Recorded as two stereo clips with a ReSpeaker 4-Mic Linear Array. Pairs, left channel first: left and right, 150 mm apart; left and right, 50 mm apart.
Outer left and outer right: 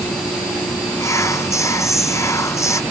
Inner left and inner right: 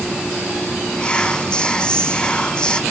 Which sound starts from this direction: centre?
Whispering, at 1.0 s.